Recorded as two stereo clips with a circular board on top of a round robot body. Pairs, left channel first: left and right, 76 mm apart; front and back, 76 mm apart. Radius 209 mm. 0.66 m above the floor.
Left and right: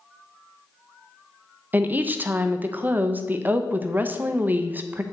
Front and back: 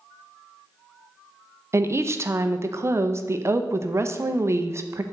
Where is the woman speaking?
145° right, 0.7 m.